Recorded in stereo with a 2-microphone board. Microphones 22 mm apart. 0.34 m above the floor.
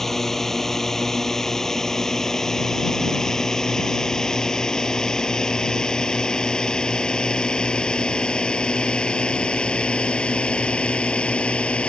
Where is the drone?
10° left (ahead or behind); by 11.9 s 55° left (ahead or behind).